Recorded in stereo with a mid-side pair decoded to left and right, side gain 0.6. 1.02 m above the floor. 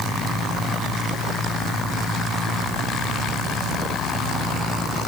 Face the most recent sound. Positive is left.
No sound to turn to.